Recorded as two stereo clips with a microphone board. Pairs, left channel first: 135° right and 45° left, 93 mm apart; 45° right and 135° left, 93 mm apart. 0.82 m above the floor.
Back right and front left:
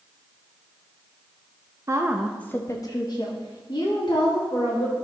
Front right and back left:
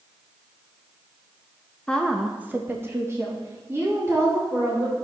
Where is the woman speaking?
25° left, 0.8 m; by 4.9 s 165° right, 3.5 m.